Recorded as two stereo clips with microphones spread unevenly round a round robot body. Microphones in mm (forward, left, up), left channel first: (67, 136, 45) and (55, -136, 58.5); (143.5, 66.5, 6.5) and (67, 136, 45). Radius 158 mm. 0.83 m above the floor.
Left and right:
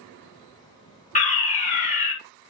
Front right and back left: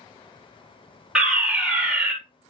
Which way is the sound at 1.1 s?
40° left.